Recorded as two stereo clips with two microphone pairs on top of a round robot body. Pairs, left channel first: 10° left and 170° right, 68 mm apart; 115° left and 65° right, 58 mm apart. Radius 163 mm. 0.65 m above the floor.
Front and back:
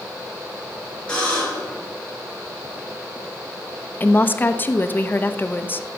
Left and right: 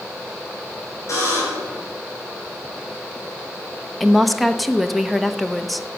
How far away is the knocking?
I don't hear knocking.